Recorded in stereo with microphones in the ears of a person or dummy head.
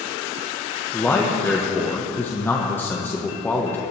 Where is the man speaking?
10° left (ahead or behind), 1.3 m.